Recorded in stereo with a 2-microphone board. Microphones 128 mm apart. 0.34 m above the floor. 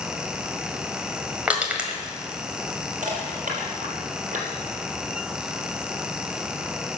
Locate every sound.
1.5 s crushing: 10° right (ahead or behind), 1.6 m
3.0 s crushing: 75° right (ahead or behind), 4 m